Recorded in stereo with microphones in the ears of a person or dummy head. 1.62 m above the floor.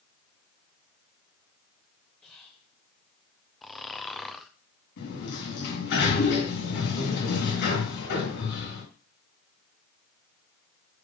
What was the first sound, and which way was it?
Whispering, 10° left (ahead or behind).